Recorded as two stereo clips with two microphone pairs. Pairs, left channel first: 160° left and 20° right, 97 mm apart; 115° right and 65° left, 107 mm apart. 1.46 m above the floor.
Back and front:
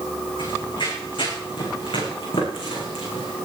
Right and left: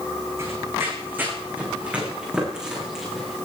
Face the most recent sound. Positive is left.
turn(degrees=155)